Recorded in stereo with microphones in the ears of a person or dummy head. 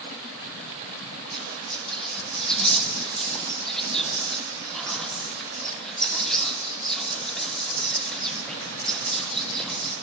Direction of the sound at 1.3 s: 5° left (ahead or behind).